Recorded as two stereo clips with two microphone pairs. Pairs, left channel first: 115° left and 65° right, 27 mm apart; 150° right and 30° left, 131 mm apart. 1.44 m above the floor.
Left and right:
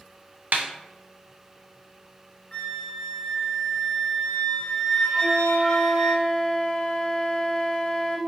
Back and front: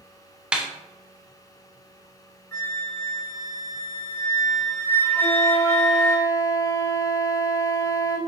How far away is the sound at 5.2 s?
About 0.9 m.